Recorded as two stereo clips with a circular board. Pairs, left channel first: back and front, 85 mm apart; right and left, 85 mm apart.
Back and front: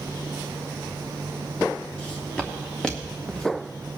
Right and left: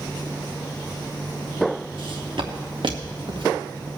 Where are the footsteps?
105° left, 3 m; by 3.9 s 90° left, 0.9 m.